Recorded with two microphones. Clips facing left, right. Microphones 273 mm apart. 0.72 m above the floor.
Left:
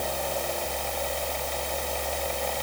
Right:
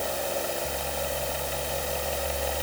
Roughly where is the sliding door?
I don't hear a sliding door.